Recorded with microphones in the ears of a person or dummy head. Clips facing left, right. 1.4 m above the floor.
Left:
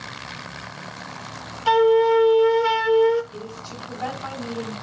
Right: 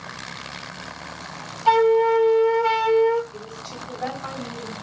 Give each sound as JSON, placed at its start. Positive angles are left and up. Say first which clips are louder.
{"t": 1.7, "sound": "a flute", "louder": "left 1 dB", "side_deg": 15, "distance_m": 0.7}
{"t": 3.3, "sound": "a woman speaking", "louder": "left 1 dB", "side_deg": 20, "distance_m": 4.0}